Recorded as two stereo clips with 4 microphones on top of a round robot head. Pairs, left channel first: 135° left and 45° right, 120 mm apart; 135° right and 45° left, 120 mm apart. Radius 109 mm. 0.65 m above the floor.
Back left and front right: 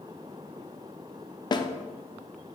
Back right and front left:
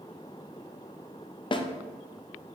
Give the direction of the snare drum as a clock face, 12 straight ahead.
6 o'clock.